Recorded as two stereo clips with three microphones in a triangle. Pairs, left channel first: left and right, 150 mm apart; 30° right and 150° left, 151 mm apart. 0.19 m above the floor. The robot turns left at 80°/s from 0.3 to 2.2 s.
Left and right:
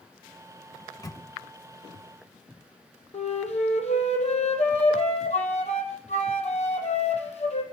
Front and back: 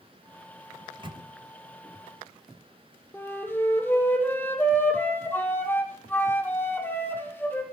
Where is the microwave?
155° left, 1.4 m; by 1.2 s 120° left, 1.4 m.